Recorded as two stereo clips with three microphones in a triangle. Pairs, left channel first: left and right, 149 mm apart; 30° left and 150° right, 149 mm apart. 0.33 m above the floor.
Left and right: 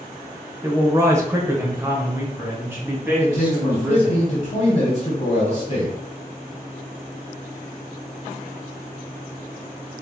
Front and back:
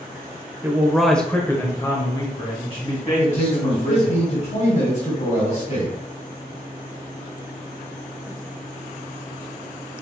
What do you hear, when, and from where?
0.6 s a man speaking: 110° right, 1.0 m; by 4.2 s 15° right, 3 m
3.2 s a man speaking: 60° left, 2 m